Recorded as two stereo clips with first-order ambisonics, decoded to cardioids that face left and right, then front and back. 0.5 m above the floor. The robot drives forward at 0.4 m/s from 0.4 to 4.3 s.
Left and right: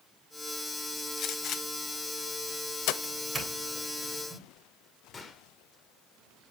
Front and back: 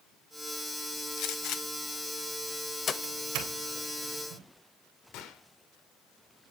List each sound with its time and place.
1.2 s a gunshot: 35° left, 1.2 m; by 2.9 s 70° left, 0.8 m
3.0 s a doorbell: straight behind, 2.5 m
5.1 s a gunshot: 20° left, 1.5 m